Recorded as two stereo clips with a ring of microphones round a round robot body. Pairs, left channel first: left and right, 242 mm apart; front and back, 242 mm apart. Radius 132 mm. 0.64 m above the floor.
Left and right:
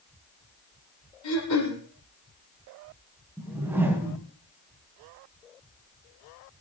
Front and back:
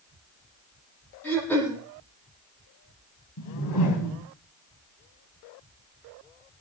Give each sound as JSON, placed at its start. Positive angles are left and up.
{"t": 1.2, "sound": "throat clearing", "azimuth_deg": 85, "distance_m": 8.5}
{"t": 3.4, "sound": "a whoosh", "azimuth_deg": -10, "distance_m": 3.0}